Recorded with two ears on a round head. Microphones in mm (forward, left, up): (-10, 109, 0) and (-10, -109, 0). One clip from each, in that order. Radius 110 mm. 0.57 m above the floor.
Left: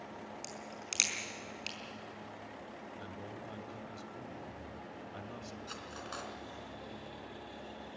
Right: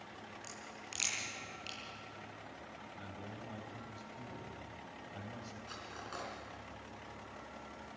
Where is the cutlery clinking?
25° left (ahead or behind), 3.5 m.